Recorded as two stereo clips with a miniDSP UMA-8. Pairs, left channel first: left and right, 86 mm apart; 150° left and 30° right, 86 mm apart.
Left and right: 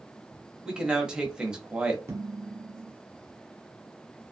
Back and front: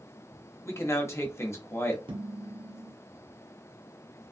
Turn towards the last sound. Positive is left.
turn(degrees=-30)